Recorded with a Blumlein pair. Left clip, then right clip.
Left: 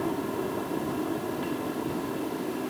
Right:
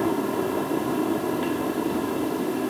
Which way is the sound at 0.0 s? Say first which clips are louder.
Right 6 dB; 20° right.